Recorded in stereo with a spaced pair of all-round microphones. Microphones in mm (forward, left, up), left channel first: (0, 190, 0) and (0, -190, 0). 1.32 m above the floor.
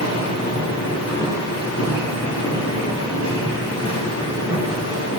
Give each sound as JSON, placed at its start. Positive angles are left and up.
{"t": 0.0, "sound": "a machine running", "side_deg": 35, "distance_m": 2.0}